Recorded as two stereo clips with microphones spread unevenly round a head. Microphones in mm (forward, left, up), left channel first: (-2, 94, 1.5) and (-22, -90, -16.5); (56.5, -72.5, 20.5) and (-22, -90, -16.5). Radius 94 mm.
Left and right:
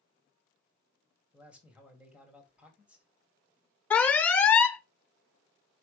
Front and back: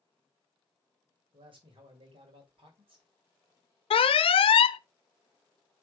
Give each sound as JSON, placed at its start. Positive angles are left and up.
{"t": 1.3, "sound": "a man speaking", "azimuth_deg": 180, "distance_m": 2.5}
{"t": 3.9, "sound": "an alarm", "azimuth_deg": 0, "distance_m": 0.6}